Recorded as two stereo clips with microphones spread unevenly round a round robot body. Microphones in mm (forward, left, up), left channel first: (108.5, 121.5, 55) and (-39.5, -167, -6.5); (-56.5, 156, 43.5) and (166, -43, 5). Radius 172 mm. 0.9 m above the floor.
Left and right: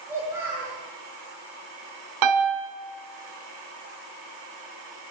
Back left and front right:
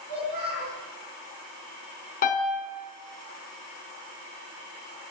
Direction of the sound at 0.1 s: 35° right.